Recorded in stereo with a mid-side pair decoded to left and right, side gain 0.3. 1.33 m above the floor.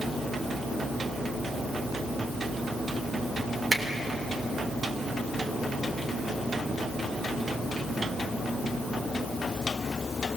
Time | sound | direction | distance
3.7 | a finger snap | 40° right | 3 m